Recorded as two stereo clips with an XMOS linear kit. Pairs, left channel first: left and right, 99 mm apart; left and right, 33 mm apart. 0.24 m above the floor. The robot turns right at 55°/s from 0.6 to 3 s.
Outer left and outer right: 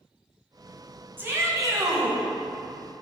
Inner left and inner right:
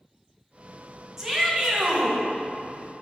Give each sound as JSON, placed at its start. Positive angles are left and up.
{"t": 1.2, "sound": "a shout", "azimuth_deg": -150, "distance_m": 1.7}